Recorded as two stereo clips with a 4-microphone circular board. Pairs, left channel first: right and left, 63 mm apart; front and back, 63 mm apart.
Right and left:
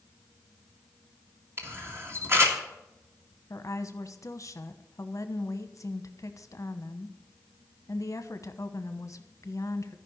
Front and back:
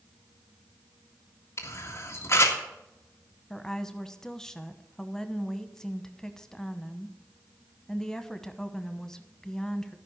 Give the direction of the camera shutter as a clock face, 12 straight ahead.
11 o'clock.